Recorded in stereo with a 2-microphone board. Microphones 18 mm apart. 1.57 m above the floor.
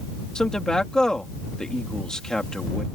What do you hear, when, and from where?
0.3 s a man speaking: 50° left (ahead or behind)